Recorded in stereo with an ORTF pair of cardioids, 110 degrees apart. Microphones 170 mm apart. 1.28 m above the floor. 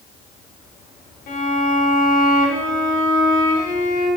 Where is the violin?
60° left, 3 m.